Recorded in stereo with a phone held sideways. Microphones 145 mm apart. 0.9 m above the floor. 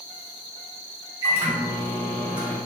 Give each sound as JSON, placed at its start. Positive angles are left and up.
{"t": 1.2, "sound": "a microwave", "side_deg": -30, "distance_m": 1.7}